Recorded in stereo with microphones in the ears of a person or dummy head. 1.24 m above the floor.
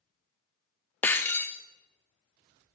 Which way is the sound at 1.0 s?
15° left (ahead or behind).